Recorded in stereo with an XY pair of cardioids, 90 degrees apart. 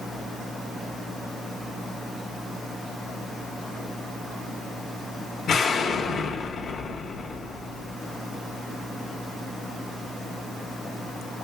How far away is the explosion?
About 1.3 m.